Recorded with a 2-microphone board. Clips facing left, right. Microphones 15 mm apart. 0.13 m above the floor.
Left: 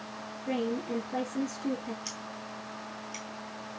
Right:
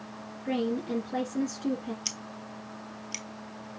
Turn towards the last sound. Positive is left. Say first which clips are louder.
# right 2 dB
turn(degrees=-40)  # may be behind; listen again after turning